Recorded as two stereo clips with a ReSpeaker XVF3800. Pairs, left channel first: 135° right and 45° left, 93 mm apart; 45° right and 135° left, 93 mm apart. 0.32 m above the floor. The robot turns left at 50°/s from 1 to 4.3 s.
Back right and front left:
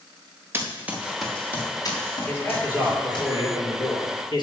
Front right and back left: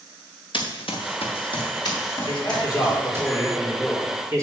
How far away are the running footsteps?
About 2.5 m.